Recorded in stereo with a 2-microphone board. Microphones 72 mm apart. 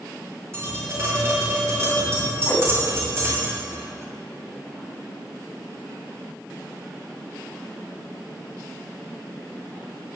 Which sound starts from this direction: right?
Tapping, at 0.5 s.